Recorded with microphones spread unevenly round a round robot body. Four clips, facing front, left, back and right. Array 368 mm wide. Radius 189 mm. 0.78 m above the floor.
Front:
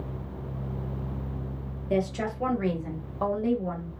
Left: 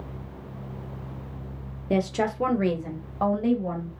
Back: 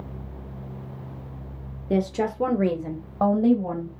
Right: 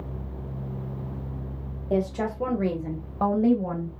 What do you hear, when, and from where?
1.9 s a woman speaking: 130° left, 0.8 m; by 3.9 s 155° right, 1.3 m